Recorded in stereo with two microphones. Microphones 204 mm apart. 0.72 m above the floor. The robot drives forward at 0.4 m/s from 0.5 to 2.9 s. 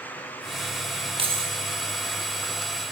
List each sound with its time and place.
1.2 s keys jangling: 30° right (ahead or behind), 0.9 m; by 1.6 s 35° right (ahead or behind), 0.8 m